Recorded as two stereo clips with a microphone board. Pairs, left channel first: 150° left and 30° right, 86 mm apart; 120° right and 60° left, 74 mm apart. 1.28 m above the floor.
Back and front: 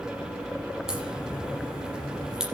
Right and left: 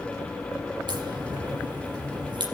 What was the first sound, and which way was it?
A crack, 50° left.